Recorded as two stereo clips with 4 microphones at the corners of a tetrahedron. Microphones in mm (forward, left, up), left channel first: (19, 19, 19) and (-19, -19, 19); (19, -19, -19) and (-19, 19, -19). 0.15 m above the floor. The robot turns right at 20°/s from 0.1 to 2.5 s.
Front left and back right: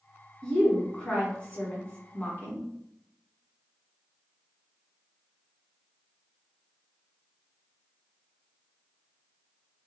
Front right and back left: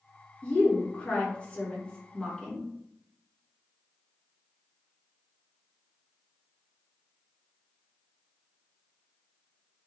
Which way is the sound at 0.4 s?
20° right.